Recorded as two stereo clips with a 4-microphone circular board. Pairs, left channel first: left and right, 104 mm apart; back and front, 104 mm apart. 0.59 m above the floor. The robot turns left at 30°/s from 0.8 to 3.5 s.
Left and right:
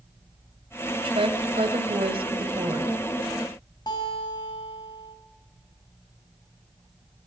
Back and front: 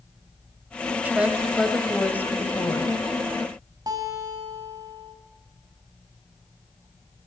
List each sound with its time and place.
1.0 s a woman speaking: 75° right, 2.5 m; by 3.0 s 135° right, 2.5 m
3.9 s a guitar: 45° left, 4.5 m